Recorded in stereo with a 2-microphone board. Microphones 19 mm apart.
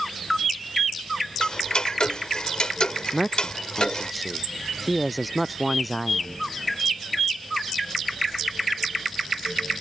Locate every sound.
1.4 s ticking: 50° left (ahead or behind)
3.1 s a man speaking: centre (ahead or behind)